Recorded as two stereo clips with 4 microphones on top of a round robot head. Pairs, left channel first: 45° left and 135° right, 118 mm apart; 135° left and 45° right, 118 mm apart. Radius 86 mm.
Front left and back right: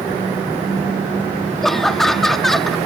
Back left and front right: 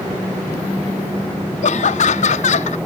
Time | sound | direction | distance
1.6 | laughter | 130° left | ?